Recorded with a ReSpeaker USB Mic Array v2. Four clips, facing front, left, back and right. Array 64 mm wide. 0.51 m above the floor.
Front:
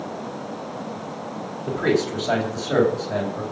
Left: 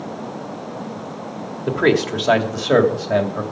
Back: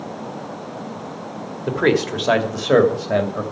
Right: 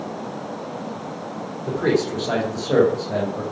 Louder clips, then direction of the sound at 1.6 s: Left 3 dB, back 3 dB; 135° left.